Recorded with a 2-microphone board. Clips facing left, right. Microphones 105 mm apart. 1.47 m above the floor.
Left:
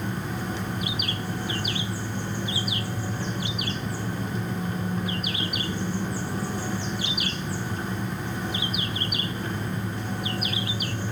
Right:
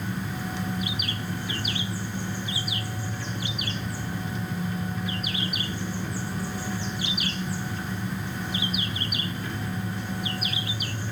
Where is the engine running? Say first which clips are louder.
Left 1 dB; 40° left (ahead or behind), 1.3 m.